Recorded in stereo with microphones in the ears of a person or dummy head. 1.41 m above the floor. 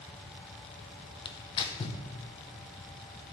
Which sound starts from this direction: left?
Tearing paper, at 1.2 s.